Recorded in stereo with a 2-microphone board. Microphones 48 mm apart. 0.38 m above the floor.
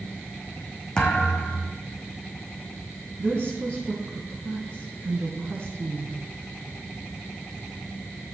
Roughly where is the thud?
Centre.